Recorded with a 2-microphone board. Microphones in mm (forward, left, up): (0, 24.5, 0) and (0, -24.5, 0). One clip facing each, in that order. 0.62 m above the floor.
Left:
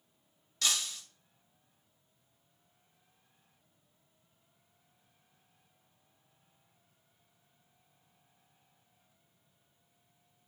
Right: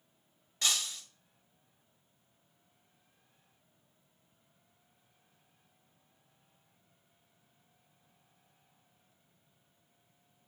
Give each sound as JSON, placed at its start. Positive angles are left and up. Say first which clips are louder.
{"t": 0.6, "sound": "breaking glass", "louder": "even", "side_deg": -25, "distance_m": 1.0}